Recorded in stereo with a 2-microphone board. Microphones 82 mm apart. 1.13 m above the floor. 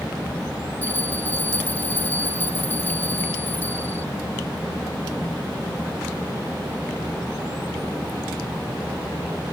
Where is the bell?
25° left (ahead or behind).